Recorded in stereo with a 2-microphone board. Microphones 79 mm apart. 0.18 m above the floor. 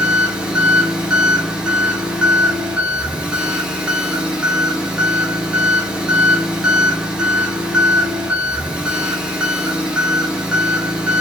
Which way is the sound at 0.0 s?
15° right (ahead or behind).